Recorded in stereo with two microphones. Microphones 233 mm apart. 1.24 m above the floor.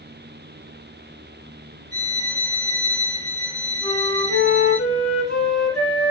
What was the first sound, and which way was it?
A violin, 60° left (ahead or behind).